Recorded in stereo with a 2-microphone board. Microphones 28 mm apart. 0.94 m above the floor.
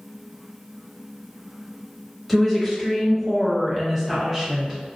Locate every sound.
2.3 s a woman speaking: centre (ahead or behind), 1.2 m; by 4.8 s 5° right (ahead or behind), 0.9 m